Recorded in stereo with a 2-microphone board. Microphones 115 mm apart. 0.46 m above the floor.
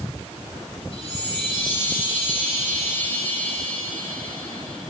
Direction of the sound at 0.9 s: 55° left (ahead or behind).